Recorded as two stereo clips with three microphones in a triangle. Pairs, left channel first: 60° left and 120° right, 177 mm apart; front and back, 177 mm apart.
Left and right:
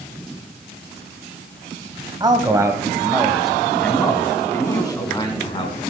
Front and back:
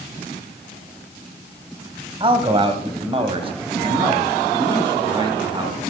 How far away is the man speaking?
About 1.7 m.